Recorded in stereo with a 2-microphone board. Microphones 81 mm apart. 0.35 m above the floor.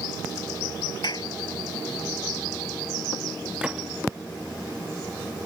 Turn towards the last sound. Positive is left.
turn(degrees=-10)  # may be behind; listen again after turning